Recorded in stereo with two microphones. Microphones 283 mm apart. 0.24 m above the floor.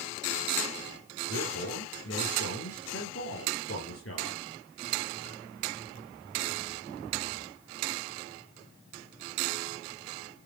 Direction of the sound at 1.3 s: 50° left (ahead or behind).